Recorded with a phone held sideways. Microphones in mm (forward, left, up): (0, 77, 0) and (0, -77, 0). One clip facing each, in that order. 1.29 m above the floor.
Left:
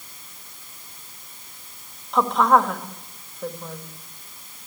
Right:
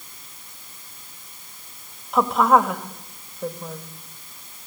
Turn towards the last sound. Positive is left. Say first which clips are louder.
# right 1 dB
turn(degrees=-5)  # may be behind; listen again after turning